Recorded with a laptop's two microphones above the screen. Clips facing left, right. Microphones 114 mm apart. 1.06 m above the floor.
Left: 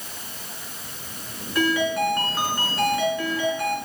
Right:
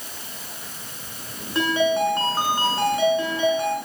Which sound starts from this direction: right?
A ringtone, at 1.6 s.